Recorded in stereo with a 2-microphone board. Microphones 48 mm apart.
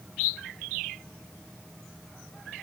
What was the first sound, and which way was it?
Only background noise.